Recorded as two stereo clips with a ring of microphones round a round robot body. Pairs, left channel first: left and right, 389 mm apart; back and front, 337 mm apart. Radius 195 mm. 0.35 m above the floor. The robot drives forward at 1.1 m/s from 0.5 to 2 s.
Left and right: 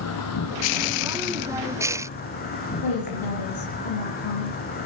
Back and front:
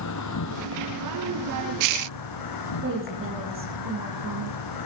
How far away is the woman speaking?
About 9 m.